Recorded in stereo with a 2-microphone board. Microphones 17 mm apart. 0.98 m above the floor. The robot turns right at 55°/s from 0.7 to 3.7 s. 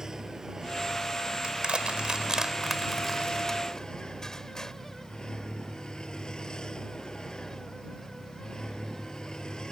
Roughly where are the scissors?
No scissors in this recording.